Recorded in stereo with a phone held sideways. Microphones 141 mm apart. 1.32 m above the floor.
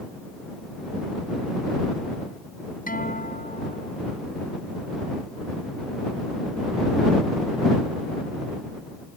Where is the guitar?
80° left.